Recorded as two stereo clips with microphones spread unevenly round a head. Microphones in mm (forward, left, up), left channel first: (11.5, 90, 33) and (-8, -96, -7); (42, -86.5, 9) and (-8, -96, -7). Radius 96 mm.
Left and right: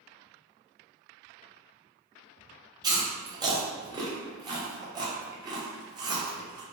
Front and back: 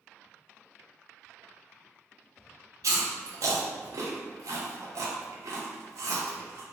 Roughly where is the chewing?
Behind.